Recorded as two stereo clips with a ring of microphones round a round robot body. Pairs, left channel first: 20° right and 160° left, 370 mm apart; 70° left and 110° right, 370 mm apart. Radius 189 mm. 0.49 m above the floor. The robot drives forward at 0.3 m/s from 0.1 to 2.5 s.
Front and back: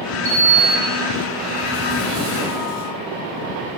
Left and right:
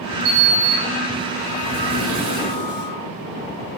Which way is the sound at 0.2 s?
140° right.